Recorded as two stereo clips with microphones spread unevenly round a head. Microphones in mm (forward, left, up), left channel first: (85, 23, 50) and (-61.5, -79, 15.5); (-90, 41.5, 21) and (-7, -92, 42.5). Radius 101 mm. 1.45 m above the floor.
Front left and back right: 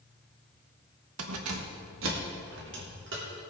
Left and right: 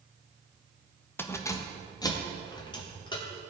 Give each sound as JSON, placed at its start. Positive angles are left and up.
{"t": 1.2, "sound": "keys jangling", "azimuth_deg": -160, "distance_m": 1.0}